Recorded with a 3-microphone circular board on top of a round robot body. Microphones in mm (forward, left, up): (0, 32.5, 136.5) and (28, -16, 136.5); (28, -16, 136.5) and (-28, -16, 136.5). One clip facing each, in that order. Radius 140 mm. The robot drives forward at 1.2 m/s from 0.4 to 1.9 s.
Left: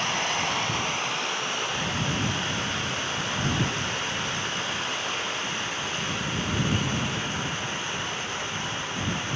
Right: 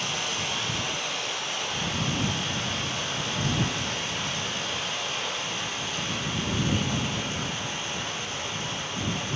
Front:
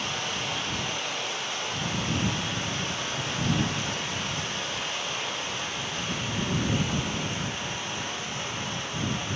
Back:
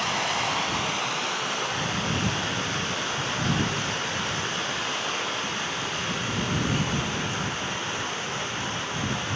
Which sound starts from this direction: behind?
Running water, at 0.0 s.